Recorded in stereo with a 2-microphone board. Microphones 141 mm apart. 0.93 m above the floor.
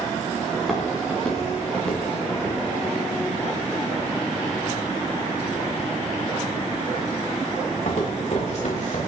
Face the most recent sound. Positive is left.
turn(degrees=55)  # may be behind; listen again after turning